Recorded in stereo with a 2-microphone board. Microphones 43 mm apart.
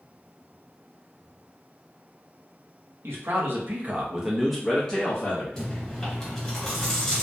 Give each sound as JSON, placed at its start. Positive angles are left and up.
{"t": 3.0, "sound": "a man speaking", "side_deg": -65, "distance_m": 0.8}
{"t": 5.6, "sound": "chewing", "side_deg": 5, "distance_m": 1.4}